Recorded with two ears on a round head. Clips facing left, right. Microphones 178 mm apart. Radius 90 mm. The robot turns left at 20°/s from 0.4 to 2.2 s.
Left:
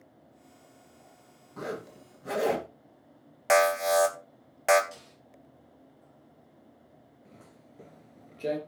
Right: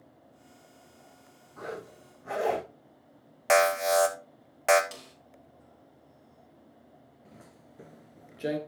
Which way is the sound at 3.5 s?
Centre (ahead or behind).